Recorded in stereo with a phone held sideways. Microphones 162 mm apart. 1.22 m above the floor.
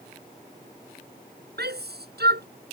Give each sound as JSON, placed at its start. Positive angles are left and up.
{"t": 1.6, "sound": "a shout", "side_deg": -85}